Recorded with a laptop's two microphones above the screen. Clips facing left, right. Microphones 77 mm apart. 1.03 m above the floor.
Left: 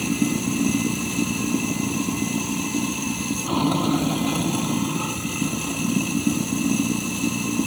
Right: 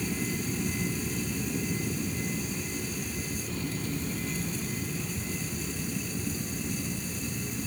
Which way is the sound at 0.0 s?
90° left.